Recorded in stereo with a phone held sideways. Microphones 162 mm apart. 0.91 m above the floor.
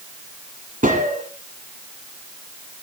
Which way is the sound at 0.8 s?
55° right (ahead or behind).